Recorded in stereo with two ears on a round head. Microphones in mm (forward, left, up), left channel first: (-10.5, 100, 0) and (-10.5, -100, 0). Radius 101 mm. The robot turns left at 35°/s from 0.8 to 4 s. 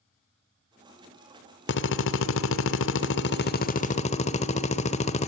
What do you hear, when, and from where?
1.7 s a drill: 115° left, 1.0 m; by 5.3 s 35° left, 1.0 m